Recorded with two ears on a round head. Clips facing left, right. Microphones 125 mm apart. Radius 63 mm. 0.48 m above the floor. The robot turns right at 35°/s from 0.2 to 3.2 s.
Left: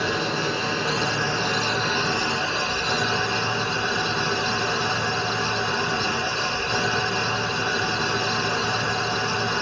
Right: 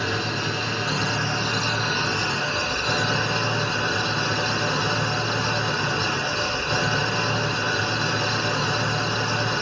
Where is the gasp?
I don't hear a gasp.